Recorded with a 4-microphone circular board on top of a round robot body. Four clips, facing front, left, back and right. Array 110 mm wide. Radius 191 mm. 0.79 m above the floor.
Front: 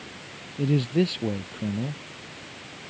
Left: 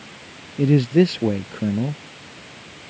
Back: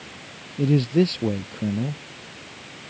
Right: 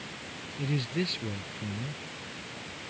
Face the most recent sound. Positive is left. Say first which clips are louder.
# left 16 dB, back 4 dB
turn(degrees=100)